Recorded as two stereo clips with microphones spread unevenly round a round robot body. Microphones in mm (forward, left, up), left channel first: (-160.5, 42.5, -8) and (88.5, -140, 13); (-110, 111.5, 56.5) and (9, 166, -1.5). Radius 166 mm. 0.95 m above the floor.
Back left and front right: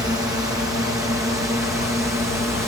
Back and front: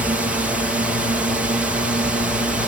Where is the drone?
45° left.